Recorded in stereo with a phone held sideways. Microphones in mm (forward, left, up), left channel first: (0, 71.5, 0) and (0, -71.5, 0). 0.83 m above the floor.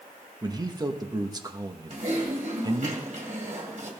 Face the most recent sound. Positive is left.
turn(degrees=-55)  # may be behind; listen again after turning